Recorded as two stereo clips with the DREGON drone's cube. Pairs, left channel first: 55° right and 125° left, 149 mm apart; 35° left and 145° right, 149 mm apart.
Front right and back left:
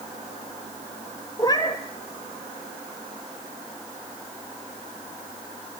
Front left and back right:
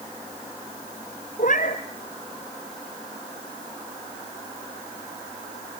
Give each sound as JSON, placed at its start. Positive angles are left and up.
{"t": 1.4, "sound": "a cat meowing", "azimuth_deg": 10, "distance_m": 1.9}